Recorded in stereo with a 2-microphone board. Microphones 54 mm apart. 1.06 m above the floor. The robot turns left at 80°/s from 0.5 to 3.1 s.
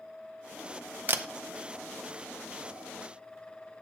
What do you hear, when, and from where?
1.1 s a camera shutter: 40° right (ahead or behind), 0.5 m; by 1.2 s 45° right (ahead or behind), 0.5 m